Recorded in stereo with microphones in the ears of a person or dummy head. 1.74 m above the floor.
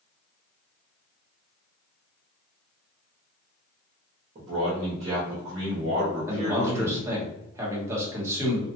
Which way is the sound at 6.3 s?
10° right (ahead or behind).